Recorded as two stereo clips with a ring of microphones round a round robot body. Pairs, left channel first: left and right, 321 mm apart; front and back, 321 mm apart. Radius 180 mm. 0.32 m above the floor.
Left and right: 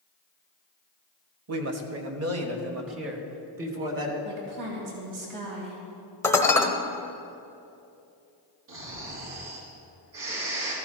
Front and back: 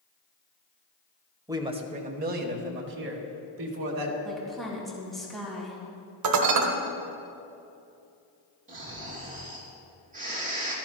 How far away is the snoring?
About 3.5 m.